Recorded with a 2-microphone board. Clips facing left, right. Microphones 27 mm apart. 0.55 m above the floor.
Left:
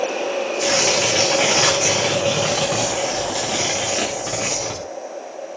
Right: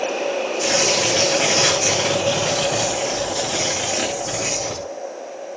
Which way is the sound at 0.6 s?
55° left (ahead or behind).